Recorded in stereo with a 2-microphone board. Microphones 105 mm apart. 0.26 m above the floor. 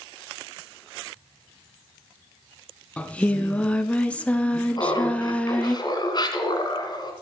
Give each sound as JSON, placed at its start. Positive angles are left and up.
{"t": 3.0, "sound": "singing", "side_deg": 10, "distance_m": 0.5}
{"t": 4.8, "sound": "laughter", "side_deg": 45, "distance_m": 2.0}